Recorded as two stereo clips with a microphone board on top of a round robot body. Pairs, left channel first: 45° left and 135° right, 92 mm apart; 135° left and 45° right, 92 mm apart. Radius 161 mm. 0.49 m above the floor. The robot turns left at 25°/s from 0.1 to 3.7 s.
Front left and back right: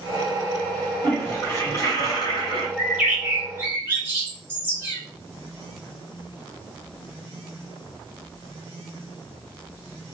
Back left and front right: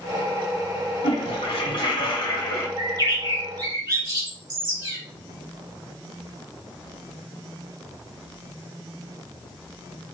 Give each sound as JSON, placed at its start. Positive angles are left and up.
{"t": 1.0, "sound": "a toilet flushing", "azimuth_deg": 120, "distance_m": 0.9}
{"t": 2.8, "sound": "a bird", "azimuth_deg": -50, "distance_m": 2.0}